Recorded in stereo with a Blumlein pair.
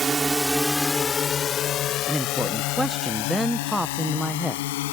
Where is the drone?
20° right; by 4.9 s 55° left.